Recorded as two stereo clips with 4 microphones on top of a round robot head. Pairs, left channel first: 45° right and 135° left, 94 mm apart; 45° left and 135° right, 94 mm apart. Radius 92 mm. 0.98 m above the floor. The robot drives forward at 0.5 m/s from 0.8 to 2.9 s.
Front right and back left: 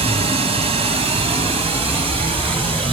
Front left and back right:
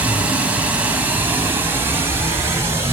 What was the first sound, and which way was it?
Running water, 150° left.